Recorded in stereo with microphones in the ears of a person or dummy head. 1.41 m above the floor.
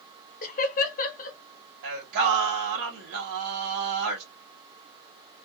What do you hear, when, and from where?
0.4 s laughter: 50° left (ahead or behind), 0.9 m
1.8 s singing: 60° right (ahead or behind), 1.2 m